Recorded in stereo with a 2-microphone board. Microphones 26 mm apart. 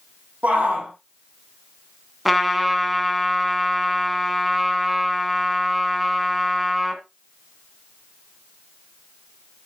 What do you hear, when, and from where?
0.4 s a shout: 80° right, 5 m
2.2 s a trumpet: 5° left (ahead or behind), 1.8 m